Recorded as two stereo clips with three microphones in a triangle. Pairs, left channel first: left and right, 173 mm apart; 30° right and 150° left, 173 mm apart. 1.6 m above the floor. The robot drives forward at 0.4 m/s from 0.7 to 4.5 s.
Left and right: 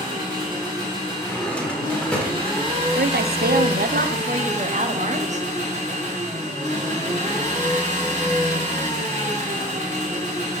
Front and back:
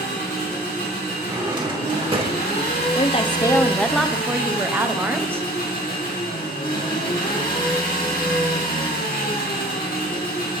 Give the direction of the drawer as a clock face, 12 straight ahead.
7 o'clock.